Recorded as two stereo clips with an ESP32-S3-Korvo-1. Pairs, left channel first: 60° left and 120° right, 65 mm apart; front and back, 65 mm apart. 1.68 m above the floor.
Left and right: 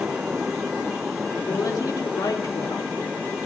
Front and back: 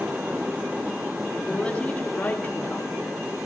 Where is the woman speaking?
75° left, 3.5 m; by 3.4 s 55° left, 4 m.